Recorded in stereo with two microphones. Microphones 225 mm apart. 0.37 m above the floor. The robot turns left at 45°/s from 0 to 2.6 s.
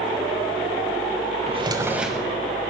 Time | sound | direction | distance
1.5 | a drawer | 150° right | 1.1 m